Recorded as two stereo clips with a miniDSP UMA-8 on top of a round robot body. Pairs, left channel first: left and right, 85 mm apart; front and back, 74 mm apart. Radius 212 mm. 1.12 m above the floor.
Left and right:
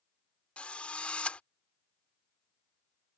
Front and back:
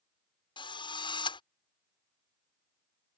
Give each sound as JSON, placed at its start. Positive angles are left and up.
{"t": 0.6, "sound": "a drill", "azimuth_deg": 10}